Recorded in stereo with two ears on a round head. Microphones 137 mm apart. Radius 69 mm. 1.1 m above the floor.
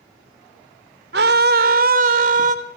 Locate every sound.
1.1 s a scream: 65° right (ahead or behind), 3.5 m; by 2.5 s 45° right (ahead or behind), 4.5 m